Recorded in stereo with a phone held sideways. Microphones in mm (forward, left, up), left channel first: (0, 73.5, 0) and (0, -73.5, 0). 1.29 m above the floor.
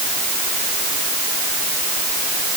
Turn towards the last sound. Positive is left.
No sound to turn to.